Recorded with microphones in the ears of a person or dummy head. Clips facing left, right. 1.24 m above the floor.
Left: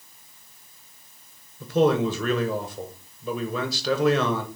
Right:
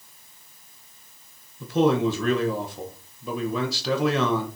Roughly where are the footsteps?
No footsteps in this recording.